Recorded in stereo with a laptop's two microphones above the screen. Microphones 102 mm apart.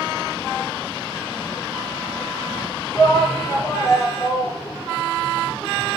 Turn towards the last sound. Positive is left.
turn(degrees=30)  # may be behind; listen again after turning